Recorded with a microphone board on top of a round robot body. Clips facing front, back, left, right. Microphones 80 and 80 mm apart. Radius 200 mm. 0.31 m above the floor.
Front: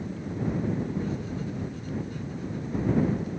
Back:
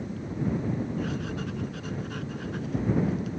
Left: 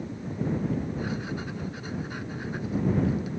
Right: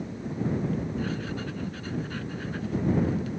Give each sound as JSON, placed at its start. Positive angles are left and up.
{"t": 1.0, "sound": "writing", "azimuth_deg": 165}